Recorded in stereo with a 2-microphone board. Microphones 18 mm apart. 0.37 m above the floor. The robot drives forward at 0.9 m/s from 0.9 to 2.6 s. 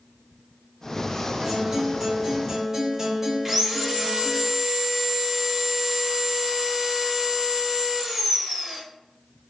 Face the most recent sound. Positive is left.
turn(degrees=-10)  # may be behind; listen again after turning